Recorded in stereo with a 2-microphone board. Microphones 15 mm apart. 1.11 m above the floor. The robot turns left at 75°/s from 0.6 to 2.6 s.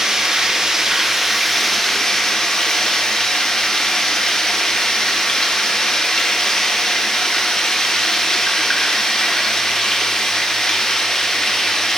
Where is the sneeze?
I don't hear a sneeze.